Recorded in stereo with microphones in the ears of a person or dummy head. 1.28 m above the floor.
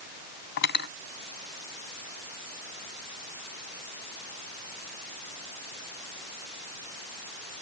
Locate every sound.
0.6 s cutlery clinking: 65° left (ahead or behind)